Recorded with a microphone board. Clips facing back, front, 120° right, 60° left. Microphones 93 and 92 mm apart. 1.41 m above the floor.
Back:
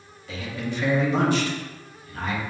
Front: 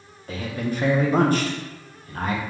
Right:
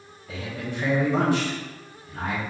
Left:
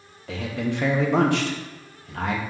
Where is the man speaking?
45° left, 0.8 m.